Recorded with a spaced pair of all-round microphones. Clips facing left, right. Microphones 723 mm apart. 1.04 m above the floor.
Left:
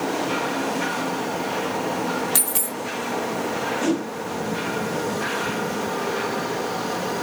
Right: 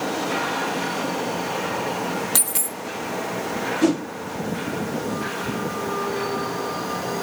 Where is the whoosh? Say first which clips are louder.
Right 4 dB; 65° right (ahead or behind), 2.5 m.